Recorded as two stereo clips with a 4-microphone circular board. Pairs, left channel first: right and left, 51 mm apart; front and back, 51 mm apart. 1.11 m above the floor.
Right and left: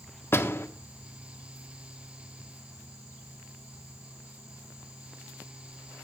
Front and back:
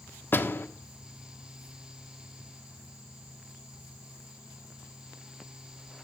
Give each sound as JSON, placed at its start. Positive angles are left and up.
{"t": 0.3, "sound": "a door slam", "azimuth_deg": -45, "distance_m": 1.5}